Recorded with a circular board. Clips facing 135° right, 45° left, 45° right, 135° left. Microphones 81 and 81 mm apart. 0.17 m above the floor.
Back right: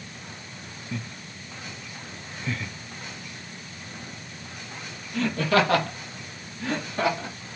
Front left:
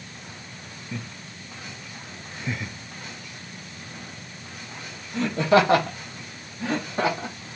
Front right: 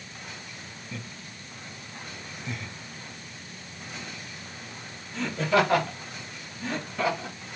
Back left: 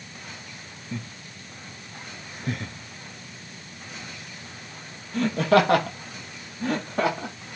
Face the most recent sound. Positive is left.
turn(degrees=110)